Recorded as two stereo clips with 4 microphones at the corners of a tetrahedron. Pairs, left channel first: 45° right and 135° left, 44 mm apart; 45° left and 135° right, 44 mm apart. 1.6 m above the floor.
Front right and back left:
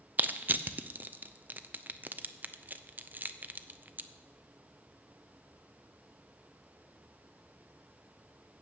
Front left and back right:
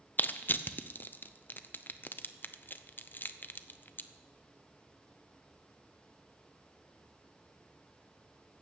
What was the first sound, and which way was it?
Crushing, 90° left.